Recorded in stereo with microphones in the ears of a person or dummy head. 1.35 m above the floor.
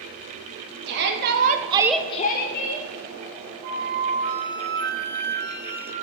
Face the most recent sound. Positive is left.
turn(degrees=-65)  # may be behind; listen again after turning